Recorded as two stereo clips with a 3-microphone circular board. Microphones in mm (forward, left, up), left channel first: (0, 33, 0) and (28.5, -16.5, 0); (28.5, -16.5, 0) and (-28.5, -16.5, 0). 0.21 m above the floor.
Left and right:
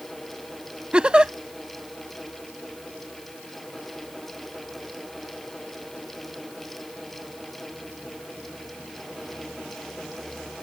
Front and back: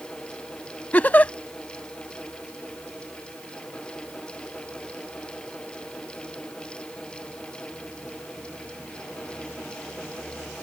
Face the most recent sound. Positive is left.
turn(degrees=-10)